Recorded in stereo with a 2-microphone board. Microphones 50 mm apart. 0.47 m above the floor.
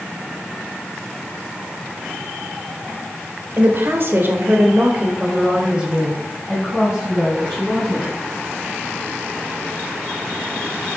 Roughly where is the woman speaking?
Right.